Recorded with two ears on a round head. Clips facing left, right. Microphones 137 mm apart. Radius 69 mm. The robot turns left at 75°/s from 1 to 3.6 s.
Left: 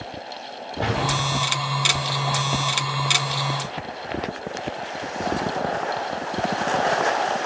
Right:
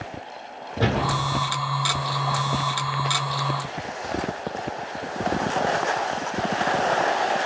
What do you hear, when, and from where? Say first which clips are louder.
0.8 s a door slam: right 1 dB; 60° right (ahead or behind), 8 m; by 1.4 s 90° right, 8 m